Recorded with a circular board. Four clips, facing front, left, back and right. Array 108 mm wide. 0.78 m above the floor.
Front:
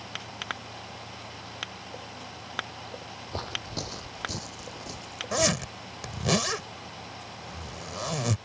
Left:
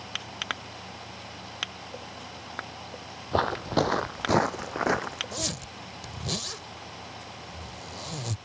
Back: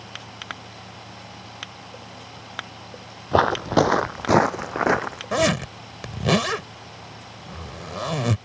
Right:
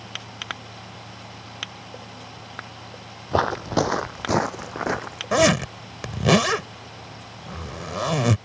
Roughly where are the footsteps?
Behind.